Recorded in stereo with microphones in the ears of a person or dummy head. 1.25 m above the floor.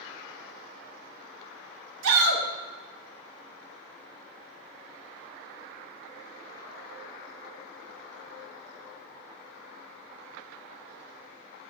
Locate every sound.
2.0 s a shout: 80° right, 1.3 m